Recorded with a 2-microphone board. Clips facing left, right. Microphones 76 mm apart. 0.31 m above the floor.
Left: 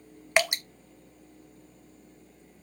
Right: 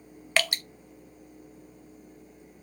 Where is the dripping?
20° left (ahead or behind), 0.6 m.